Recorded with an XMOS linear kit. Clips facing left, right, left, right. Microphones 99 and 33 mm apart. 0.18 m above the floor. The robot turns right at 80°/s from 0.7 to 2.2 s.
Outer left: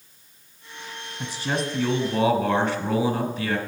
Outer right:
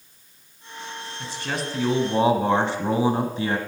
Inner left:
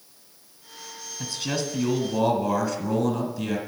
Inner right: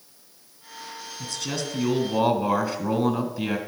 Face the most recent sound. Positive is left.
turn(degrees=-130)